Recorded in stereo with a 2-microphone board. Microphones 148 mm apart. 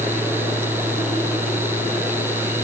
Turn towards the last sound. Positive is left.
No sound to turn to.